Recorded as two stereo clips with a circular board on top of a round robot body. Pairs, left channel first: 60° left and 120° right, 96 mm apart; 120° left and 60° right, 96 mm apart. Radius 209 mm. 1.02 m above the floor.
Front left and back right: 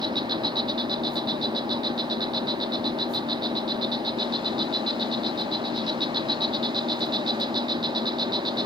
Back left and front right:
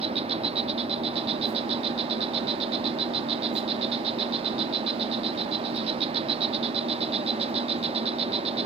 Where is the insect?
75° right.